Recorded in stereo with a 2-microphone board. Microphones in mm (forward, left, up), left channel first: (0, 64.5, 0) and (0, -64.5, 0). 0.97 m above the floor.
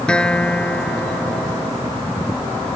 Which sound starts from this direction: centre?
A guitar, at 0.1 s.